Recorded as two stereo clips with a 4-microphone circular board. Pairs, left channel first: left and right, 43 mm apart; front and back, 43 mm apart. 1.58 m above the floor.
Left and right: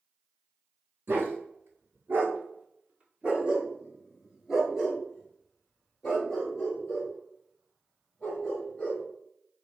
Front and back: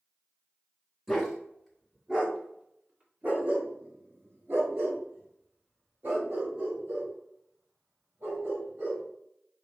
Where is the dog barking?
85° right, 1.9 m; by 9.0 s 155° left, 5 m.